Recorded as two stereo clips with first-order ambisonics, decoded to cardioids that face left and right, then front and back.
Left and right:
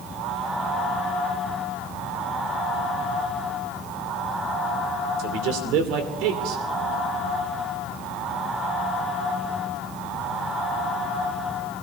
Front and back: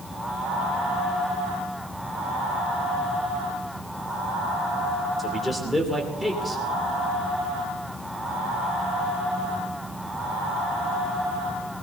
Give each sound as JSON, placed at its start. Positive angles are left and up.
{"t": 5.2, "sound": "a man speaking", "azimuth_deg": -85, "distance_m": 2.5}